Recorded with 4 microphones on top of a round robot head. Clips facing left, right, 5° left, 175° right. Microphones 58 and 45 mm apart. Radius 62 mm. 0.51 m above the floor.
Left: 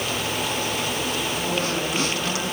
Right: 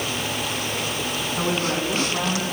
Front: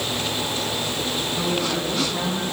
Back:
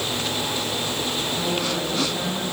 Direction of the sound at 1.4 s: 60° right.